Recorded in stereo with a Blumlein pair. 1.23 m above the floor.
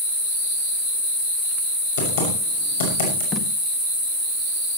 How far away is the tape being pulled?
About 1.7 m.